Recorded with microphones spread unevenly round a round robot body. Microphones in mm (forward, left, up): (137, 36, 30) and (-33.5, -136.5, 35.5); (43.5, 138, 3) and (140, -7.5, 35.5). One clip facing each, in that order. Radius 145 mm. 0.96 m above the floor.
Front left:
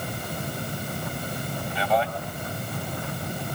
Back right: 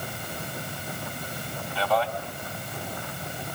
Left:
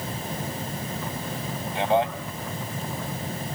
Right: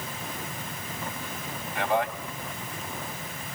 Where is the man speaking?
60° left, 5 m.